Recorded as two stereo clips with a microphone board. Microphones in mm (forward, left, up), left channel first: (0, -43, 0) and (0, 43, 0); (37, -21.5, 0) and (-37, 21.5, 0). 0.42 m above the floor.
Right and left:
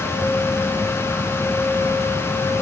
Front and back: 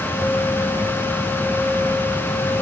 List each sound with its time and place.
Only background noise.